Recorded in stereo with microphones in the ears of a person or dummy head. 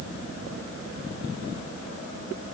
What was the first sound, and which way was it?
Only background noise.